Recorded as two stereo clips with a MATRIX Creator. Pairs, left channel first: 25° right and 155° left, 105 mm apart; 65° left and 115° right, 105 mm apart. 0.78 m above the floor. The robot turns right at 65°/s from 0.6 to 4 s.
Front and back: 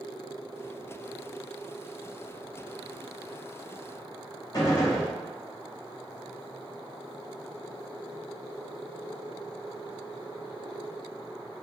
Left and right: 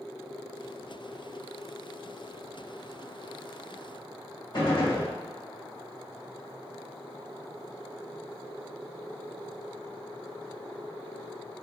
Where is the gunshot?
30° left, 1.4 m.